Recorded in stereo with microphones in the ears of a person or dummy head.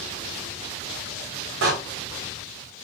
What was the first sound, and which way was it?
A door slam, 70° right (ahead or behind).